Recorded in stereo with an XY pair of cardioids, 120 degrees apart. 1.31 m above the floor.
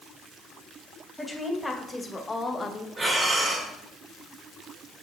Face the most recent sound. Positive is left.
turn(degrees=-25)